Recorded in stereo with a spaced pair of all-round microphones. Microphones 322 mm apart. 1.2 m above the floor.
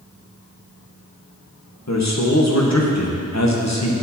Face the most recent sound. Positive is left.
turn(degrees=55)  # may be behind; listen again after turning